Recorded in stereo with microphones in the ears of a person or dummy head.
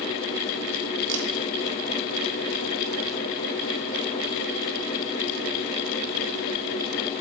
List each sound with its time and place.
1.1 s a camera shutter: 65° right (ahead or behind), 2.5 m